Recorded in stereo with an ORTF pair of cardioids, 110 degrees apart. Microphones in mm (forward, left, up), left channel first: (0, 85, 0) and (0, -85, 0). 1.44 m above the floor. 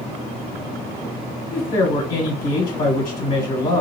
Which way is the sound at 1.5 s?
55° left.